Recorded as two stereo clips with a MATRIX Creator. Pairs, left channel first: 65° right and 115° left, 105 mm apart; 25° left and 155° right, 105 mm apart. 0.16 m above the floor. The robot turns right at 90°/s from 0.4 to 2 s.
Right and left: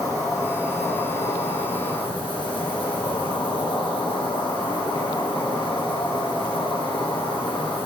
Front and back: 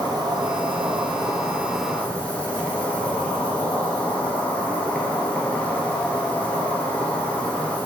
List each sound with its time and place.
0.0 s an insect: 165° left, 1.9 m; by 7.9 s 50° right, 1.9 m